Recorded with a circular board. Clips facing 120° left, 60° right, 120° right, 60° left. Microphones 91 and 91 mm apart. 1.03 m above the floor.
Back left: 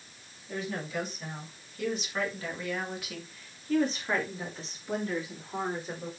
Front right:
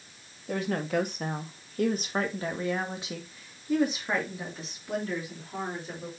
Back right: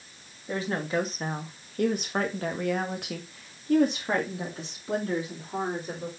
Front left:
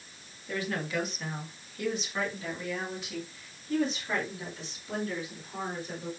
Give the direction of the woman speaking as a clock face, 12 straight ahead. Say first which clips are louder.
Front right 6 dB, back right 4 dB; 2 o'clock.